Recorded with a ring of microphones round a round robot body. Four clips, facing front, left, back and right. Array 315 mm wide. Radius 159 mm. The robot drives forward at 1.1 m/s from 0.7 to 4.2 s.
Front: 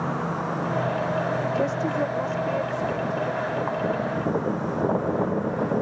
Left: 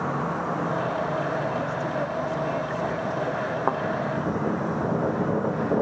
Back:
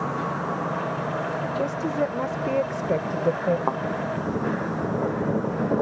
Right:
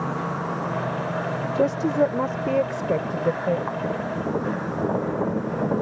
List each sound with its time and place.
1.6 s a woman speaking: 80° right; by 3.6 s 140° right
3.7 s a thud: 130° left